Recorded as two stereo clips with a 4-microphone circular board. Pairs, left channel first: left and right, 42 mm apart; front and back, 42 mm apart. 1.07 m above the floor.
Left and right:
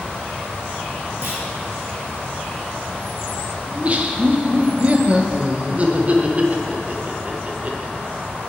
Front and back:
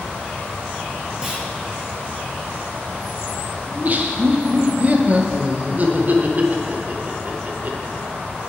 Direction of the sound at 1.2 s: 110° right.